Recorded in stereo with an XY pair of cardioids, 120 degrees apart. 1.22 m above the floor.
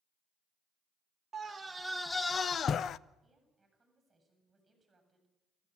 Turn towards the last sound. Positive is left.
turn(degrees=-15)